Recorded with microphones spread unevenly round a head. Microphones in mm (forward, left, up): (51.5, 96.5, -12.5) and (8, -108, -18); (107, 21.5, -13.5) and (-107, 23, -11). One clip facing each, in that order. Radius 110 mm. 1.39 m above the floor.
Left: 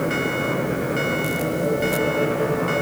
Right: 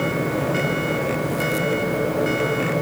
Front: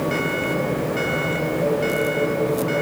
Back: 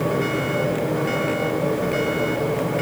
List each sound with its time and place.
Only background noise.